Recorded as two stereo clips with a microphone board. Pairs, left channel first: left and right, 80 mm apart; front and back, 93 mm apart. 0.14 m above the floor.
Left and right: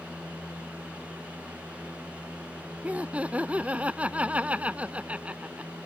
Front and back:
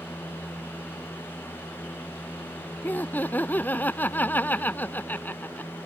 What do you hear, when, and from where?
2.8 s laughter: 40° right